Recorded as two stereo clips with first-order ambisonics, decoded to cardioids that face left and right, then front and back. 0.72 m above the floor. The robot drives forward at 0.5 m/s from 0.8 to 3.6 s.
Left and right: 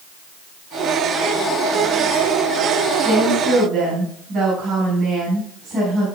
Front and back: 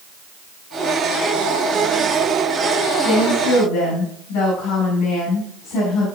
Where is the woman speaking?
30° right, 3.5 m; by 6.1 s 35° right, 3.5 m.